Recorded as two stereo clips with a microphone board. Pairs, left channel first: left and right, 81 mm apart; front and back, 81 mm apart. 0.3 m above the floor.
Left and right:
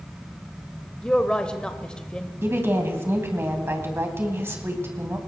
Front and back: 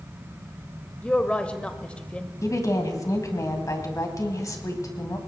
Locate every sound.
1.0 s a woman speaking: 40° left, 0.9 m
2.4 s a woman speaking: 35° right, 2.5 m